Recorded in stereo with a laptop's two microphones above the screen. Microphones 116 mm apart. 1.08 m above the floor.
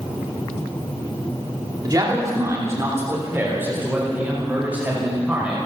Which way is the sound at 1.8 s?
35° right (ahead or behind).